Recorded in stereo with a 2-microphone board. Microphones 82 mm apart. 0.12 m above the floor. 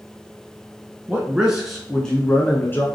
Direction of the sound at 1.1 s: 15° right (ahead or behind).